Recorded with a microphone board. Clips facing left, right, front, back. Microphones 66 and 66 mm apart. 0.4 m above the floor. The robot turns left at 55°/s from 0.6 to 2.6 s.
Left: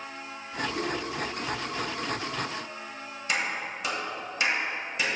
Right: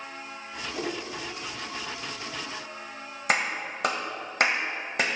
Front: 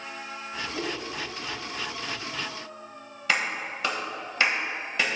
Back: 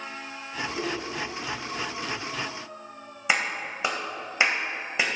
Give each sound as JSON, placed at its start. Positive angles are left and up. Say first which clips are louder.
{"t": 0.7, "sound": "a whoosh", "louder": "right 1 dB, back 1 dB", "azimuth_deg": -65, "distance_m": 2.0}
{"t": 3.3, "sound": "a clap", "louder": "right 3 dB, back 1 dB", "azimuth_deg": -110, "distance_m": 1.4}